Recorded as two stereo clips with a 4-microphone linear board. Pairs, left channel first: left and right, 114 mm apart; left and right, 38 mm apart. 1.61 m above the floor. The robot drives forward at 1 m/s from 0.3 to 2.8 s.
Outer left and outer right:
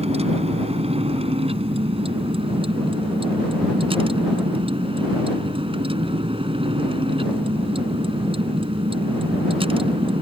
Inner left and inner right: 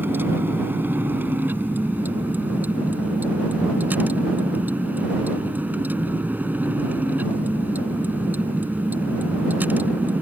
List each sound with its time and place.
0.0 s a vehicle: 70° right (ahead or behind); by 10.2 s 55° right (ahead or behind)